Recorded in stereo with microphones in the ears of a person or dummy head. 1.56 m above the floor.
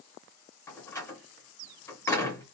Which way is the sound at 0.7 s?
15° left (ahead or behind).